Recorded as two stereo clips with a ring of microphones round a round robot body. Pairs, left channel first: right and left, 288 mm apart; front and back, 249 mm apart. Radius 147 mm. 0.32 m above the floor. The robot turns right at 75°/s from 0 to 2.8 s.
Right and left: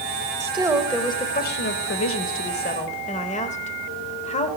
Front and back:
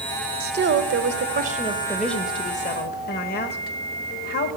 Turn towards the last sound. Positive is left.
turn(degrees=-35)